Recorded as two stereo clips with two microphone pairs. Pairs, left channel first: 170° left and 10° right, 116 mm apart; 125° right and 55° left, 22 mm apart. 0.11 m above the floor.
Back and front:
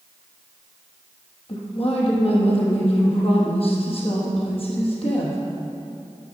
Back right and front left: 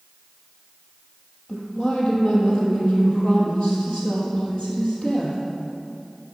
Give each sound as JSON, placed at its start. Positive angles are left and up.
{"t": 1.5, "sound": "a woman speaking", "azimuth_deg": -160, "distance_m": 3.0}